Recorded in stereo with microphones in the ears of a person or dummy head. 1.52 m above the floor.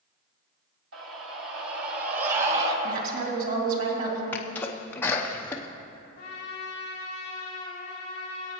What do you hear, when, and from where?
0.9 s a scream: 80° right, 2 m; by 2.7 s 35° right (ahead or behind), 1.7 m
2.8 s a woman speaking: 55° right (ahead or behind), 3 m
4.3 s a sneeze: 10° left (ahead or behind), 0.7 m
6.2 s a trumpet: 40° left (ahead or behind), 3 m